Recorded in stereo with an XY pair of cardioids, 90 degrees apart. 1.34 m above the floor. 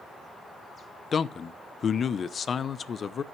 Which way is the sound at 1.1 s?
55° left.